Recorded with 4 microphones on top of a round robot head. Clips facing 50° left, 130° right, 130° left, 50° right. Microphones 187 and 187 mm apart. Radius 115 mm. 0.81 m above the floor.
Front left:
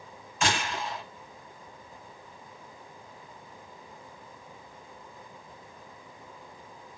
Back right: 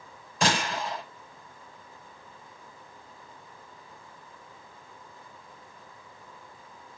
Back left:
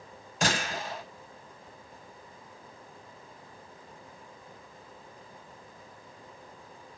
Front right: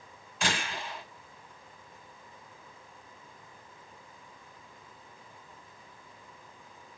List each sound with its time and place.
0.4 s a gunshot: straight behind, 4.5 m